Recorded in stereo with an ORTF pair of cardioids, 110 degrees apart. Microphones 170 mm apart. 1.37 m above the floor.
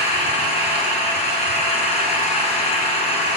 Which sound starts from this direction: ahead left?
An engine running, at 0.0 s.